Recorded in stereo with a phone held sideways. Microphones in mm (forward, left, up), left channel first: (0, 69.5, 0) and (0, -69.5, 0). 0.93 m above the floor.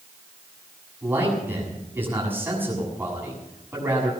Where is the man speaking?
15° right (ahead or behind), 7 m.